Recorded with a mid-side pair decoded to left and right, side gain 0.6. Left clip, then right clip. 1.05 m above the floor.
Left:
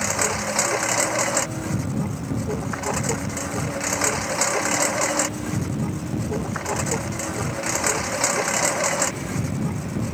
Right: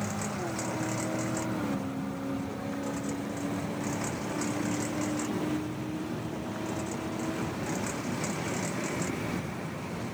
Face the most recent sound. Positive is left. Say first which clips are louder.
# left 11 dB
turn(degrees=65)